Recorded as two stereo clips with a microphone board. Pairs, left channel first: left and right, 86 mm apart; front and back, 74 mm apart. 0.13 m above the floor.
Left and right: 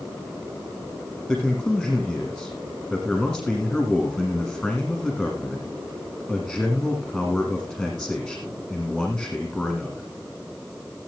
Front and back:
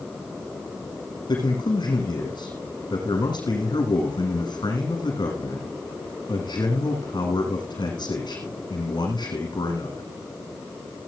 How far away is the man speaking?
About 6 m.